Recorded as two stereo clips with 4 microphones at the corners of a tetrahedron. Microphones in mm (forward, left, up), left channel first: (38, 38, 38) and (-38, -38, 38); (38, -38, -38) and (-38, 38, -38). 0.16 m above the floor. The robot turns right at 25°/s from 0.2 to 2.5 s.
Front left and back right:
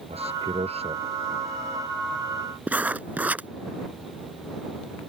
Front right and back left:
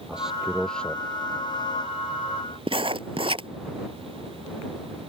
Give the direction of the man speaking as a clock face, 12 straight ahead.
5 o'clock.